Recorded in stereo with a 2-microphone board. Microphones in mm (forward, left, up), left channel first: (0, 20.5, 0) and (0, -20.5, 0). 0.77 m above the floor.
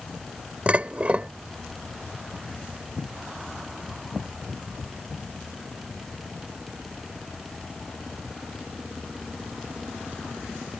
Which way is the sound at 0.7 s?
30° right (ahead or behind).